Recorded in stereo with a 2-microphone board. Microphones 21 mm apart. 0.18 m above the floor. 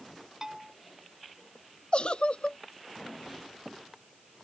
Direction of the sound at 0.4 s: 20° right (ahead or behind).